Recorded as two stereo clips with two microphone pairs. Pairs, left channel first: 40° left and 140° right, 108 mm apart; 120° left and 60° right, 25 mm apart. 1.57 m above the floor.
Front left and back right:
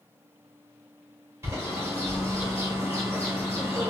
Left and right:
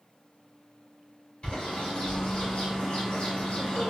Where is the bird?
155° left, 1.7 m.